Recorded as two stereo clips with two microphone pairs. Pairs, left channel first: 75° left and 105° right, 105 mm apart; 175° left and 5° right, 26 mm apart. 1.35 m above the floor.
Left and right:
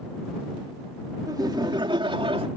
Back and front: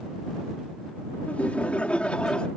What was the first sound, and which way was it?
Laughter, 160° right.